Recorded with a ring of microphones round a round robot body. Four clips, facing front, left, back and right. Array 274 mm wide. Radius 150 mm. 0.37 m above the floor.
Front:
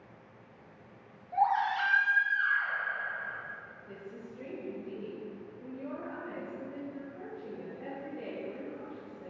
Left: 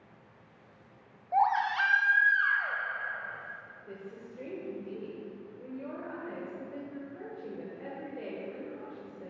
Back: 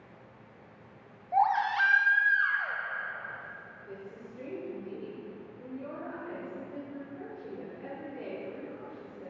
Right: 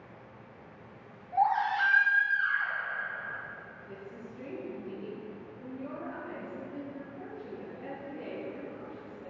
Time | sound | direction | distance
1.3 | a baby crying | 135° left | 1.0 m
3.9 | a woman speaking | 120° left | 2.0 m